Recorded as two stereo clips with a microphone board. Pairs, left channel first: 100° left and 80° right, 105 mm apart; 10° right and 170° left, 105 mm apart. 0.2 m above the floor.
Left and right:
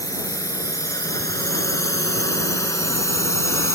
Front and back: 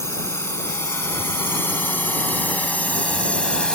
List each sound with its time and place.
0.0 s a drone: 50° left; by 3.8 s 65° left